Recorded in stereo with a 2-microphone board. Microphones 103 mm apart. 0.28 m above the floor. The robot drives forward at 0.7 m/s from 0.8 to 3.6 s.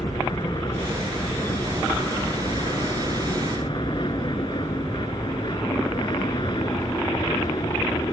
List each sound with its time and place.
0.0 s an aircraft: 45° left (ahead or behind); by 8.1 s 50° left (ahead or behind)